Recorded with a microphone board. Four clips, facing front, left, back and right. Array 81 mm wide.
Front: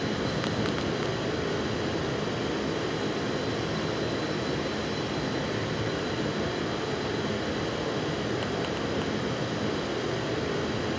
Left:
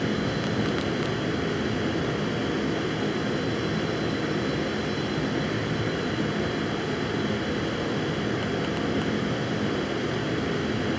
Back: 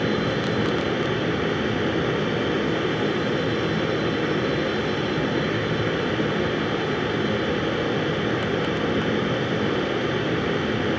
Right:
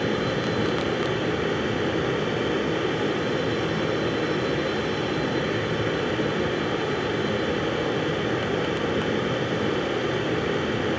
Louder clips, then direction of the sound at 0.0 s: Right 2 dB, back 6 dB; 160° right.